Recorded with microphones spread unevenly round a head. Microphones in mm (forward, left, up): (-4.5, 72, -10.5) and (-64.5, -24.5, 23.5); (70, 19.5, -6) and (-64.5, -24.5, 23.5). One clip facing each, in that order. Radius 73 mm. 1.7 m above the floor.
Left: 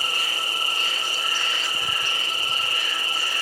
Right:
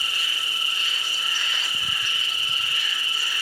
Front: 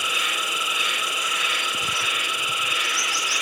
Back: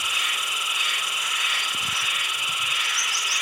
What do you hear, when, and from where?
0.0 s an insect: 5° right